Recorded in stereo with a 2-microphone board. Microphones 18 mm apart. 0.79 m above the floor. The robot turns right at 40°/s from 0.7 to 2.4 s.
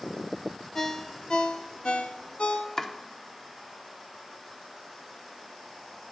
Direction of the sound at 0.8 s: 25° left.